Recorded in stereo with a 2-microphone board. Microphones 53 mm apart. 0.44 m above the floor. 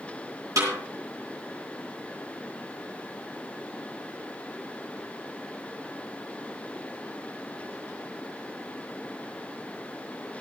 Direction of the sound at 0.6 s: 80° right.